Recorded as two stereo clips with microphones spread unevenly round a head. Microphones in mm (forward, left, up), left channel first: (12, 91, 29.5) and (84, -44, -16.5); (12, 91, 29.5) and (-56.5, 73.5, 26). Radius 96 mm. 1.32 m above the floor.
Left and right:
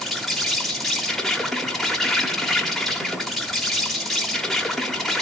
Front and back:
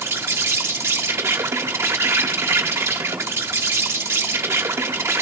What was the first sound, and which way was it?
An insect, 135° right.